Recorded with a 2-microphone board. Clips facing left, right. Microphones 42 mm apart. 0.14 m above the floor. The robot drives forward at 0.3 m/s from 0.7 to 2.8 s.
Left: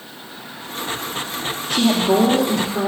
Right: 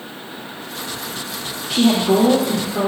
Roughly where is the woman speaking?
Centre.